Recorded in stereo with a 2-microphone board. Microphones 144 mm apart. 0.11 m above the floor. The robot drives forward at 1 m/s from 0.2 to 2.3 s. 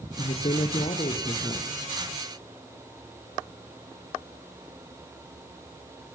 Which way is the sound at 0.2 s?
55° left (ahead or behind).